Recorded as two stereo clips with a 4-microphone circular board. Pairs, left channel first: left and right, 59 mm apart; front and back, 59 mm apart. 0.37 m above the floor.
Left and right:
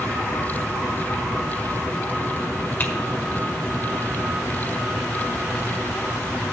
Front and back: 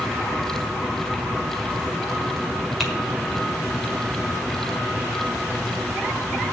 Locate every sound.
2.8 s typing on a keyboard: 100° left, 1.4 m